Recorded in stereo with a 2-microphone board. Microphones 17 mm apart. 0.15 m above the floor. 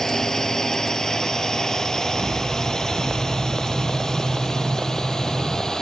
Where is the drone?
25° left (ahead or behind); by 5.8 s 35° left (ahead or behind).